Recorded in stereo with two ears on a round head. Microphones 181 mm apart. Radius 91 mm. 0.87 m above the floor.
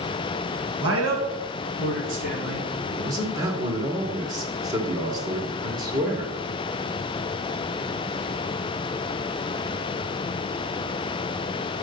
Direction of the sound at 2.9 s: 20° right (ahead or behind).